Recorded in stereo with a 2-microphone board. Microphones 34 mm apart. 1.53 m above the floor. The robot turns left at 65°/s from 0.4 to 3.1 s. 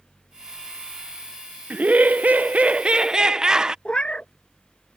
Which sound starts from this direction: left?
A cat meowing, at 3.9 s.